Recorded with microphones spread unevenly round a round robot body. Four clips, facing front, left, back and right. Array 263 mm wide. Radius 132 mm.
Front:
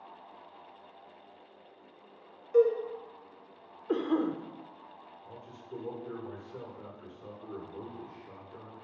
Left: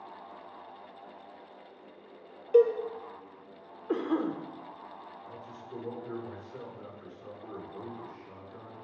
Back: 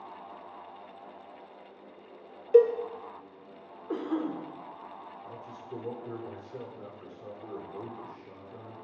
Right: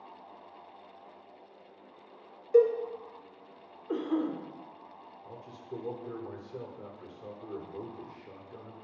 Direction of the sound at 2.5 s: 175° left.